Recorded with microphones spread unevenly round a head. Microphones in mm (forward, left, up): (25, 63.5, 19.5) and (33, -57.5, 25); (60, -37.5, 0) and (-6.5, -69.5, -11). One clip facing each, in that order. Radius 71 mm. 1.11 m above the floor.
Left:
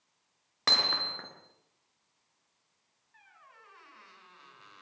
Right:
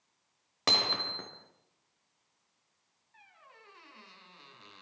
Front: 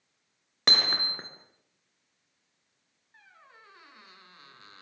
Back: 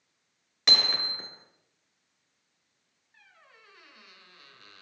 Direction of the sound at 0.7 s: 15° right.